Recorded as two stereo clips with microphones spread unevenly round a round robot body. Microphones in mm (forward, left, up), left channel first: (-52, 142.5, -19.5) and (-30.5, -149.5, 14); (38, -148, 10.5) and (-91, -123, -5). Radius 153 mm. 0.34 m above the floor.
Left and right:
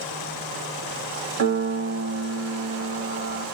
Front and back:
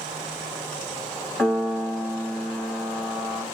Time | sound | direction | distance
1.4 | a piano | 100° right | 0.7 m